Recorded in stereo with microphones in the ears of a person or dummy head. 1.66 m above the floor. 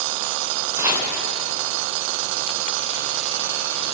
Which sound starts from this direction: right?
Chopping, at 0.8 s.